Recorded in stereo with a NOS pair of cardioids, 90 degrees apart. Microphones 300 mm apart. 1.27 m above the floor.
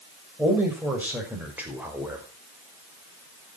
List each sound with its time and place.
0.4 s a man speaking: 5° right, 6.5 m